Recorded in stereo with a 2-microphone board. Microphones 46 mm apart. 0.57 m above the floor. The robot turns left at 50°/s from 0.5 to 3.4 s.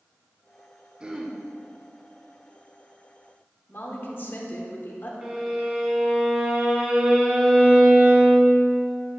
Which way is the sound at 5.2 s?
15° right (ahead or behind).